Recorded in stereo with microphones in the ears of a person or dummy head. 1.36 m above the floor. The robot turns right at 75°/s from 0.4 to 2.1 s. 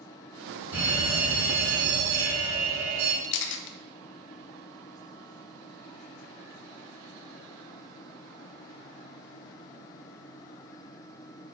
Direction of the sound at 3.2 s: 70° left (ahead or behind).